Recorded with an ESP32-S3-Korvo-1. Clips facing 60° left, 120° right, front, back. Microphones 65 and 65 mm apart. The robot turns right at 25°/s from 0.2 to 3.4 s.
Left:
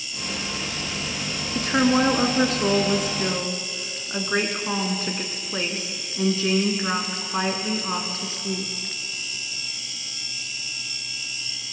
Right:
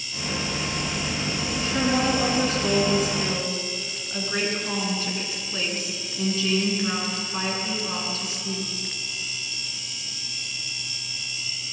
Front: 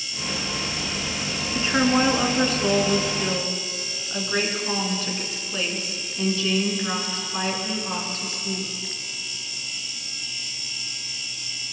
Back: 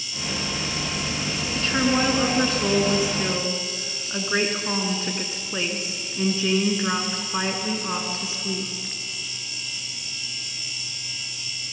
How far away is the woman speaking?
About 3 m.